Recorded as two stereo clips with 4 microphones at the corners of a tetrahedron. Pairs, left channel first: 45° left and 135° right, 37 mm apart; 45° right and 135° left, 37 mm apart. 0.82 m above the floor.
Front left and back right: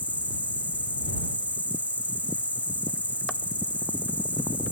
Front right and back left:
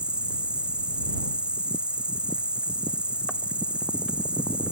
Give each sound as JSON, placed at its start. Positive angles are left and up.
{"t": 0.0, "sound": "an insect", "azimuth_deg": -170}